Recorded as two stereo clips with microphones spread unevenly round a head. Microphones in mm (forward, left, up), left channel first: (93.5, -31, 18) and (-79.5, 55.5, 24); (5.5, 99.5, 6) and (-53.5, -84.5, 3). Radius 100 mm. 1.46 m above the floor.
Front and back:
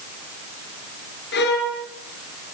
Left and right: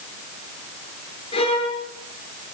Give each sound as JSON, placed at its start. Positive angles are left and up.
{"t": 1.3, "sound": "a violin", "azimuth_deg": 10, "distance_m": 5.5}